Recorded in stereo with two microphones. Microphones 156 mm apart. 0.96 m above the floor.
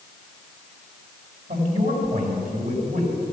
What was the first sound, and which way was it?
A man speaking, 80° right.